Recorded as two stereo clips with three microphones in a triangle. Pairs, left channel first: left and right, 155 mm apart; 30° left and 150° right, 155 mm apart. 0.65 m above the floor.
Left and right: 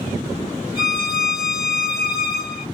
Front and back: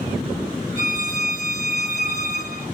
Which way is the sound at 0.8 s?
140° right.